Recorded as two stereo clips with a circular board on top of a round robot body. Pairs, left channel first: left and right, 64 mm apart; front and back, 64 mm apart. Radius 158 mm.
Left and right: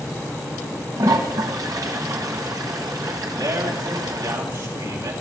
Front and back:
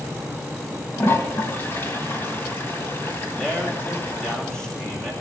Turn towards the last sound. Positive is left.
turn(degrees=-80)